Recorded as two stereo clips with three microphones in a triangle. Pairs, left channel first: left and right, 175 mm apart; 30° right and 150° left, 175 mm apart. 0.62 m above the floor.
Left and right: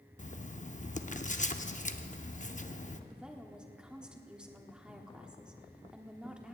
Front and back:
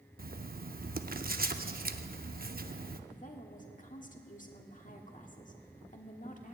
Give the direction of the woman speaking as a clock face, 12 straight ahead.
12 o'clock.